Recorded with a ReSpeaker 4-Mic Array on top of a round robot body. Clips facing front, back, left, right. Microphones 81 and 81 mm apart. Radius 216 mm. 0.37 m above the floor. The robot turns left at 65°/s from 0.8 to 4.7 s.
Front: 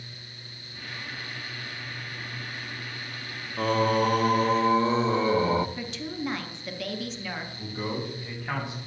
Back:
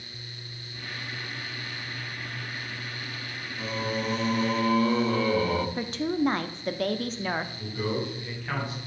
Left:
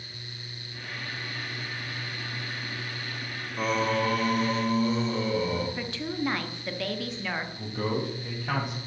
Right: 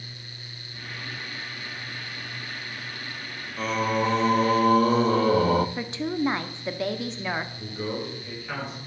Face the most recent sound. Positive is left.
turn(degrees=70)